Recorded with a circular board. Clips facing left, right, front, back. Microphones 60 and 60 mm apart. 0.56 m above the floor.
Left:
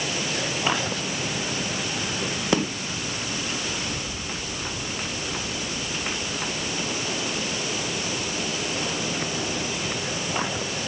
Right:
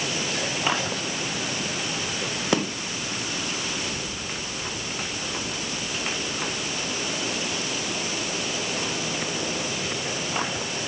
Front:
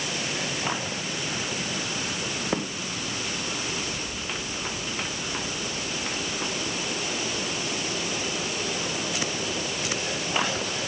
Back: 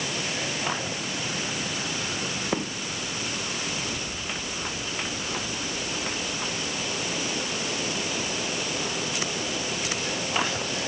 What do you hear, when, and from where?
Only background noise.